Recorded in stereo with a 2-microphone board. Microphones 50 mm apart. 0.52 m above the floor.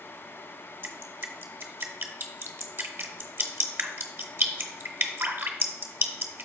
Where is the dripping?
50° right (ahead or behind), 0.8 m.